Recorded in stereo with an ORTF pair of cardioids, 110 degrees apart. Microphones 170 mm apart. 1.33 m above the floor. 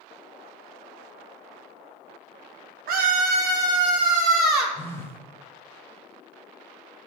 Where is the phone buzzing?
15° left, 1.7 m.